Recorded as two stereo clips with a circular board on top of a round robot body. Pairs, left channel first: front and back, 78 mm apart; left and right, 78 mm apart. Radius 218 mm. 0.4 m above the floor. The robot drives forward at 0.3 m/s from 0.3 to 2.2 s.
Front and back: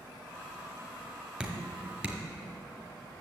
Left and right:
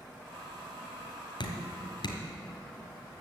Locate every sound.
1.4 s dripping: 100° left, 1.8 m; by 2.2 s 110° left, 1.9 m